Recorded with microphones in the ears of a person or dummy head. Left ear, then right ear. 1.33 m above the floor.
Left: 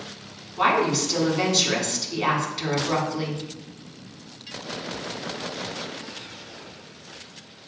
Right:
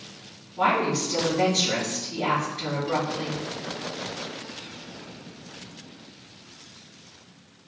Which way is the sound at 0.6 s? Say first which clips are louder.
Left 2 dB; 65° left (ahead or behind).